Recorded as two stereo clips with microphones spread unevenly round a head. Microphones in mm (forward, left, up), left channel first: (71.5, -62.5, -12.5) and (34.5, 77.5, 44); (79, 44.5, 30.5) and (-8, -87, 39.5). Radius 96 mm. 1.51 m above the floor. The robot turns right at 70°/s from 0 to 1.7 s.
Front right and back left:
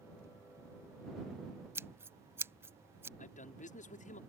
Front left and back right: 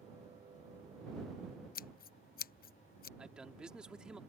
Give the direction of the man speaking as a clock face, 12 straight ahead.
1 o'clock.